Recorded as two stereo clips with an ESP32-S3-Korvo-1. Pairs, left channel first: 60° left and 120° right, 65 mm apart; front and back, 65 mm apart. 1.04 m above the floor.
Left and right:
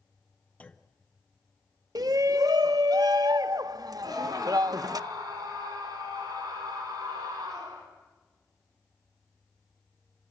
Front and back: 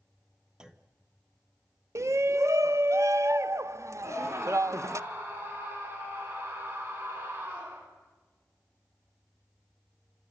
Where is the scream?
130° right, 8.5 m.